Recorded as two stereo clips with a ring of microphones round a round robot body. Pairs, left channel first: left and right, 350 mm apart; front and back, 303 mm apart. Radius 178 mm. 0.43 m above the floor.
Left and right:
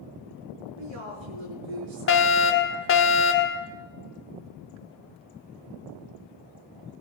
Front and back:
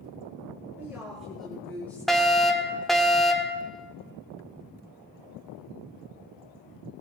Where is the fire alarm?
90° left, 2 m.